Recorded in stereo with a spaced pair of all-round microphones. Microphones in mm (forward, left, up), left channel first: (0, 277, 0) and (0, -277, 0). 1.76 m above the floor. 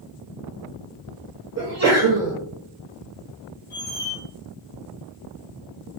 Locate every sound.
1.6 s a sneeze: 30° right (ahead or behind), 0.7 m
3.7 s a squeak: 15° right (ahead or behind), 1.9 m